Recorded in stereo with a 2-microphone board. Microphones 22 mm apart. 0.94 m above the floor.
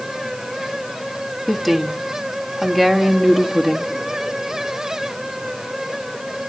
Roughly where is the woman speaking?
Centre.